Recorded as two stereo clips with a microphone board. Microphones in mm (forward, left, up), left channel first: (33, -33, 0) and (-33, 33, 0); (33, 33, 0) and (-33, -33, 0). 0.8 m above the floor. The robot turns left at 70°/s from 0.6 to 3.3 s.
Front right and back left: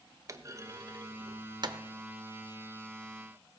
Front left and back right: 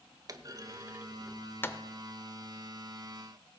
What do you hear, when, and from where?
0.3 s a clunk: straight behind, 0.7 m; by 1.8 s 100° left, 0.7 m